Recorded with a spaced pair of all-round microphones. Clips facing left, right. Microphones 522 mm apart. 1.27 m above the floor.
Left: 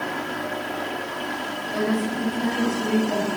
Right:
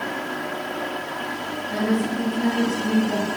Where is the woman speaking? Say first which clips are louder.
Right 1 dB; 85° right, 2 m.